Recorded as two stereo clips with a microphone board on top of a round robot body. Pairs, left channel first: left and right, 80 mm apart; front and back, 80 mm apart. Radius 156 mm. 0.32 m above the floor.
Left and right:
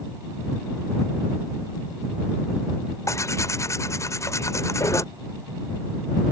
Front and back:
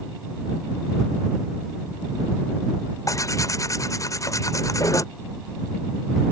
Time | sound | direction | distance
3.1 | tearing paper | 45° left | ?